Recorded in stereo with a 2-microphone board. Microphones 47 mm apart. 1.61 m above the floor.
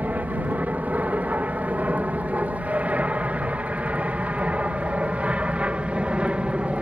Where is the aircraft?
35° right (ahead or behind); by 6.8 s 20° right (ahead or behind).